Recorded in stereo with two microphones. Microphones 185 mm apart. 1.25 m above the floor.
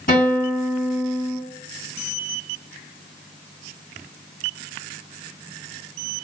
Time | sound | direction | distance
0.1 | a guitar | 55° left (ahead or behind) | 1.6 m